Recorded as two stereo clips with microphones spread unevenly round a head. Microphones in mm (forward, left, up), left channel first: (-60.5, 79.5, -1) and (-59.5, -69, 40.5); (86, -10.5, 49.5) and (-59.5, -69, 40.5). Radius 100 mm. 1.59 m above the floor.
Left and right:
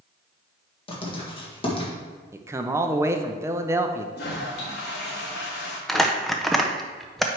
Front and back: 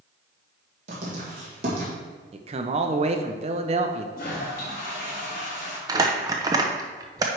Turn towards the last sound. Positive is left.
turn(degrees=-125)